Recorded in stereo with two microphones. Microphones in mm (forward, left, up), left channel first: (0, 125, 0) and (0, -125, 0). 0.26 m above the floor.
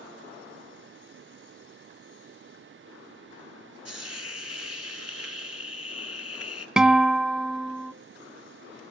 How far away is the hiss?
About 1.0 m.